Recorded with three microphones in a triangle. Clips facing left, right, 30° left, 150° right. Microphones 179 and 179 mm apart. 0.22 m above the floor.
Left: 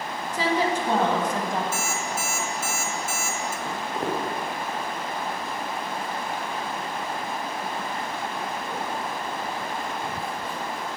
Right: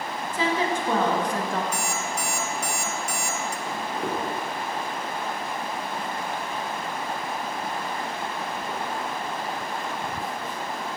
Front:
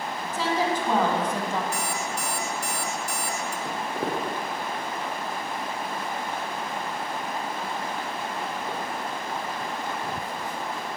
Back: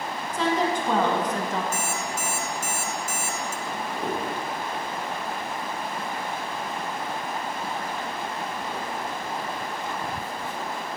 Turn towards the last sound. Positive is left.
turn(degrees=-25)